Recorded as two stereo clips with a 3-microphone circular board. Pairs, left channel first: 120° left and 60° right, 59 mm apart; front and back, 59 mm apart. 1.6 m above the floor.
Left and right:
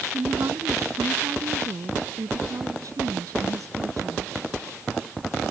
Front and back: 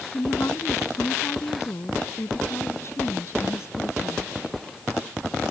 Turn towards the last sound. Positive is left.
turn(degrees=-35)